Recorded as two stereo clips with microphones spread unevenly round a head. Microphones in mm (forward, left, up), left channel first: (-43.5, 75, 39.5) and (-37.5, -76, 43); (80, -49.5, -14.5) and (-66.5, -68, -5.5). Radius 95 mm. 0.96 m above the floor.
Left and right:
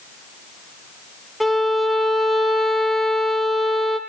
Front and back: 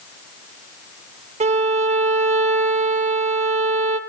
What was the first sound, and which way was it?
A violin, 175° right.